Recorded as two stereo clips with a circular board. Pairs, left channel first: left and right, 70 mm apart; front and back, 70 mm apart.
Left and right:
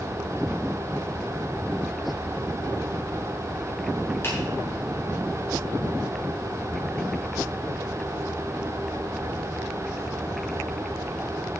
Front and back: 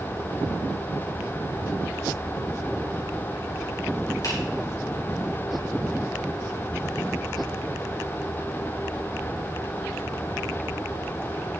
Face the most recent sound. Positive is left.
turn(degrees=35)